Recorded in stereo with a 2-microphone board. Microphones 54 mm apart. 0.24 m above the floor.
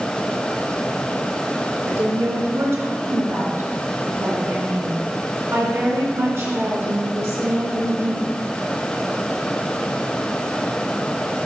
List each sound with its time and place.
1.9 s a woman speaking: 60° right (ahead or behind), 2.5 m